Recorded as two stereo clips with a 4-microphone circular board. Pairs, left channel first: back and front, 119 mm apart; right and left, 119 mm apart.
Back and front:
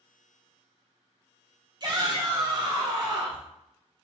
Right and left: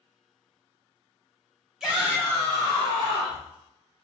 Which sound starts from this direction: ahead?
A shout, at 1.8 s.